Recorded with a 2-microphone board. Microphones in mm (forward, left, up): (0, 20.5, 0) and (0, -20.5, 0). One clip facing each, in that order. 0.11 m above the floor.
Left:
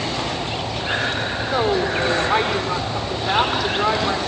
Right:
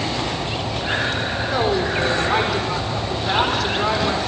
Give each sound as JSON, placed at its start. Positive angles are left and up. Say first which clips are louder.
{"t": 1.5, "sound": "a woman speaking", "louder": "left 1 dB", "side_deg": 10, "distance_m": 6.0}